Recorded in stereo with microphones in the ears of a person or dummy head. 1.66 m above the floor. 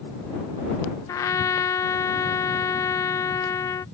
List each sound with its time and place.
1.1 s a trumpet: 15° left (ahead or behind)